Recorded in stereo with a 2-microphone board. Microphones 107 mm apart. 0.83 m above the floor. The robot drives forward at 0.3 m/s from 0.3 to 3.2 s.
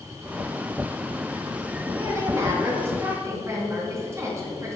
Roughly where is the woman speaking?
Right.